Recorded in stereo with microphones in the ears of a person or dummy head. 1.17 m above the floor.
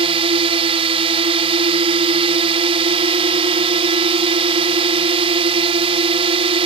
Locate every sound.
0.0 s a drone: 30° right (ahead or behind)